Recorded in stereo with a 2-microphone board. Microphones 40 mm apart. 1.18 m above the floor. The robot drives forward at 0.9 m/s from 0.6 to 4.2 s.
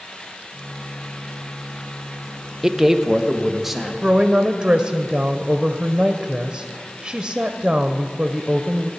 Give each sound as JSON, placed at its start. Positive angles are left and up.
{"t": 2.6, "sound": "a man speaking", "side_deg": -10, "distance_m": 0.5}
{"t": 4.0, "sound": "a woman speaking", "side_deg": -20, "distance_m": 0.7}